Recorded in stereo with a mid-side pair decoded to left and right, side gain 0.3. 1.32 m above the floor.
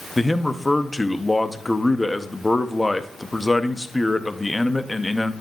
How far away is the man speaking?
About 0.7 m.